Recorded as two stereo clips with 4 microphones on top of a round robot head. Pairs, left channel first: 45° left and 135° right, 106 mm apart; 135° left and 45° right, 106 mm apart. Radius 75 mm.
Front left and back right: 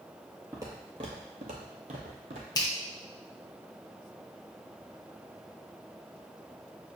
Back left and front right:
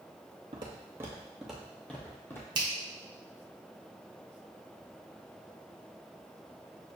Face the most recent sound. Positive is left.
turn(degrees=-5)